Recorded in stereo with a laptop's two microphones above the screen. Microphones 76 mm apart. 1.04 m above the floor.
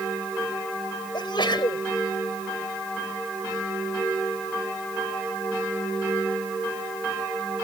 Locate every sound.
1.1 s a sneeze: 80° left